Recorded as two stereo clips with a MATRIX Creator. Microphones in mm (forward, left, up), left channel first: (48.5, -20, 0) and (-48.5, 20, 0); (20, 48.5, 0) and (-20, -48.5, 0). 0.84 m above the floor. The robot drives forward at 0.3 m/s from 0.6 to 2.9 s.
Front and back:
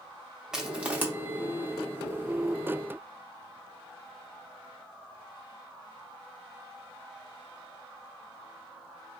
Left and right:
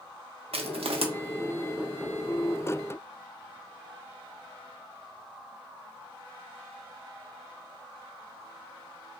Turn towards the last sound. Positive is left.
turn(degrees=-150)